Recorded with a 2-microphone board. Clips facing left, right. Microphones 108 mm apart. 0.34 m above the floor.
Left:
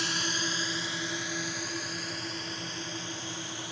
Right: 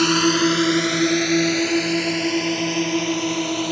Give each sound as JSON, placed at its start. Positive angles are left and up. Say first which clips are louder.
{"t": 0.0, "sound": "a drone", "louder": "right 18 dB", "side_deg": -70}